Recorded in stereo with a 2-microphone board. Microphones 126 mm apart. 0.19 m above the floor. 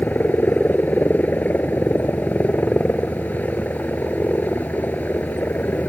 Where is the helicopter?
15° left (ahead or behind).